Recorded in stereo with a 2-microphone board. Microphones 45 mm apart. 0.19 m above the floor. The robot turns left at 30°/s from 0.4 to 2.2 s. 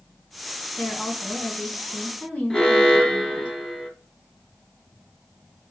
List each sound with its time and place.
0.8 s a woman speaking: 120° left, 1.8 m; by 3.5 s 75° left, 1.8 m
2.5 s an alarm: 15° left (ahead or behind), 0.9 m